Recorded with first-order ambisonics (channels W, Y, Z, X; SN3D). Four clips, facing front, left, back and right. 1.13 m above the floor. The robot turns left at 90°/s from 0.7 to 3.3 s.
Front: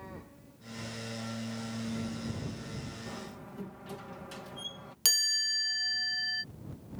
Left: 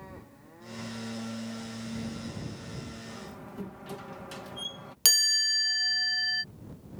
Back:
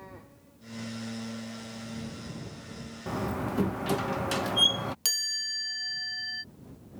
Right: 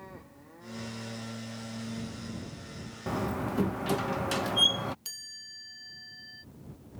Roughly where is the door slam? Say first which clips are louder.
Right 11 dB, back 11 dB; behind right.